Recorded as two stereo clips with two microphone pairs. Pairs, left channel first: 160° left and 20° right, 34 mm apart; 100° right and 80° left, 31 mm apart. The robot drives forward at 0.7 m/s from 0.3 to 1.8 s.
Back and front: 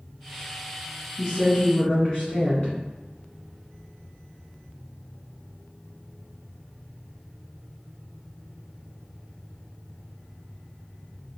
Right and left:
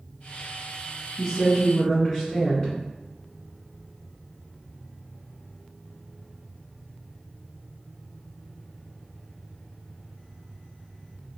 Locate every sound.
1.2 s a woman speaking: 155° right, 1.1 m; by 2.7 s 165° right, 1.4 m